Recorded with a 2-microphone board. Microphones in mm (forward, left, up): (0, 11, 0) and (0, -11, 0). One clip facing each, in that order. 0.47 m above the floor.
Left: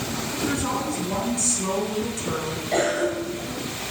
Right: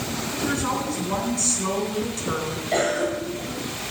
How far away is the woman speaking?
About 5 m.